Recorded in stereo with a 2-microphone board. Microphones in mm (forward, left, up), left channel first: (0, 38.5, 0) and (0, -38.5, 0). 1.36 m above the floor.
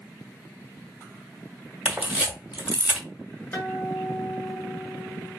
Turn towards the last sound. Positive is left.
turn(degrees=25)  # may be behind; listen again after turning